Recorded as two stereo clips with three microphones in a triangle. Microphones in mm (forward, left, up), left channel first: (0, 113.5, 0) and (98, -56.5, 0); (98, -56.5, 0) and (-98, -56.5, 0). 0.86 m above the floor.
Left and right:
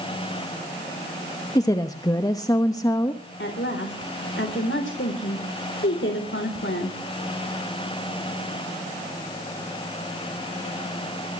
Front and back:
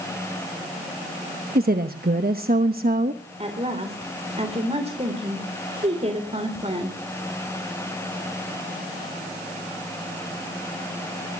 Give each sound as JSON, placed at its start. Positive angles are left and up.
{"t": 1.6, "sound": "a woman speaking", "azimuth_deg": -175, "distance_m": 1.0}
{"t": 3.4, "sound": "a woman speaking", "azimuth_deg": 125, "distance_m": 3.0}